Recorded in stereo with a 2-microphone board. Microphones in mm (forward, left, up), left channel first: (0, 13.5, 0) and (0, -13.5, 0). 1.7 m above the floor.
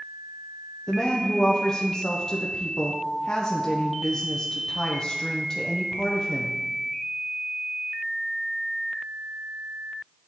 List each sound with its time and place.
0.9 s a woman speaking: 35° left (ahead or behind), 0.6 m